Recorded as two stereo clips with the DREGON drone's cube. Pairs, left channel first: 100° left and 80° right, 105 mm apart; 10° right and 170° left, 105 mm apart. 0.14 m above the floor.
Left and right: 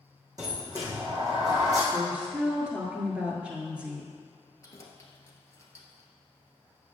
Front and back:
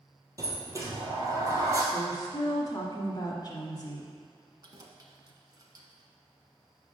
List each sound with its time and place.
0.4 s a sliding door: 130° right, 1.8 m
1.9 s a woman speaking: 5° right, 1.5 m
4.6 s keys jangling: 145° left, 1.1 m